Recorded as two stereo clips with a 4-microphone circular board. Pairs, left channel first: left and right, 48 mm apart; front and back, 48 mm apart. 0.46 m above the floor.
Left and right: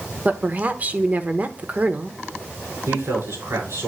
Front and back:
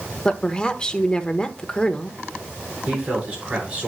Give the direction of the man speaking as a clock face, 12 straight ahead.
4 o'clock.